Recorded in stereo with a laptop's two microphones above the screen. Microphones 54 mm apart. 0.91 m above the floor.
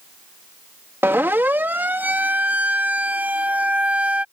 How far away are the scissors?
I don't hear scissors.